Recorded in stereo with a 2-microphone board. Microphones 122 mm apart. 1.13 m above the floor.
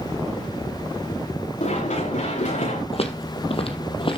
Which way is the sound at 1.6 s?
70° left (ahead or behind).